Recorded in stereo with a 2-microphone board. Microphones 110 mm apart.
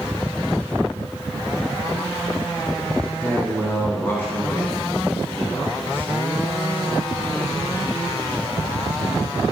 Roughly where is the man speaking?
Left.